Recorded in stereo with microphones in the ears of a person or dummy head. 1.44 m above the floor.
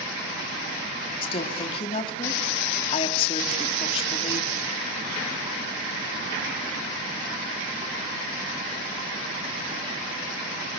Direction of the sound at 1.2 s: 35° left (ahead or behind).